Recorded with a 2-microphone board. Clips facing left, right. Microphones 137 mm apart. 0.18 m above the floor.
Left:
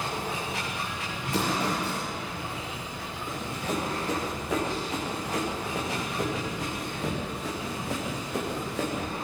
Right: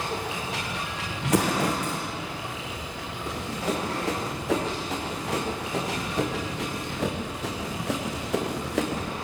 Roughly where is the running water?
Right.